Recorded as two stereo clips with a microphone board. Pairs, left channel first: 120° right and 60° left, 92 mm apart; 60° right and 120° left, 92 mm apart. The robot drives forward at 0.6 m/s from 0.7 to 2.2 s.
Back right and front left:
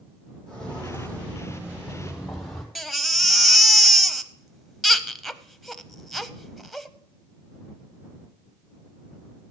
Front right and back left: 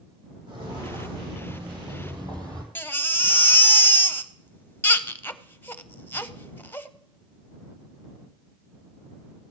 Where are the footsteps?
100° left, 4 m; by 2.6 s 150° left, 3 m.